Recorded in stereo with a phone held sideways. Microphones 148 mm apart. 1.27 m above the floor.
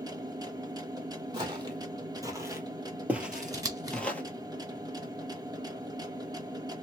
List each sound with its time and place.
0.0 s a machine running: 25° right (ahead or behind), 1.1 m
1.3 s footsteps: 30° right (ahead or behind), 1.8 m; by 4.2 s 10° left (ahead or behind), 1.3 m
3.3 s scissors: 25° right (ahead or behind), 1.1 m